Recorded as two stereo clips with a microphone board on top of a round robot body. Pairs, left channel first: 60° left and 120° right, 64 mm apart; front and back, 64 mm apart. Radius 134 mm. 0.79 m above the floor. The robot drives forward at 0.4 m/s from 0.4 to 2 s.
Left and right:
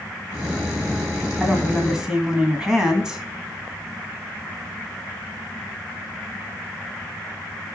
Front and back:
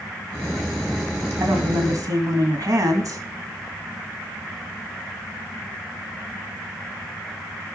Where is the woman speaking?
165° left, 1.9 m.